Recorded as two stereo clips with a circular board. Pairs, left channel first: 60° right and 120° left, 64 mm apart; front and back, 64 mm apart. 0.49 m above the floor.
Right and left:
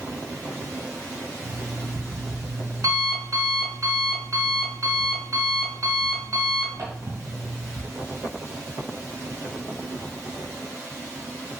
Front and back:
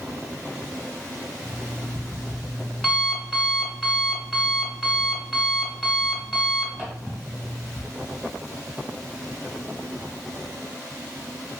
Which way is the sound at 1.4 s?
85° left.